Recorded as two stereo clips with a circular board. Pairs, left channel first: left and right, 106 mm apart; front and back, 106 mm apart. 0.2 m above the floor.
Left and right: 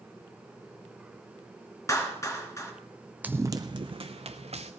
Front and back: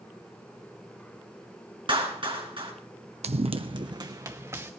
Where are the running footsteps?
165° right, 0.5 m; by 4.7 s 115° right, 1.2 m.